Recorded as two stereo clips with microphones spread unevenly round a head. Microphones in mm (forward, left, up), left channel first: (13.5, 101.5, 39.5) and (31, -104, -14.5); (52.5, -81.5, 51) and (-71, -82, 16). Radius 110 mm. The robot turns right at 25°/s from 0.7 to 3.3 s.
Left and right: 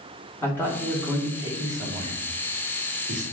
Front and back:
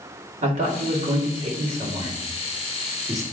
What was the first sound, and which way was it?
A man speaking, straight behind.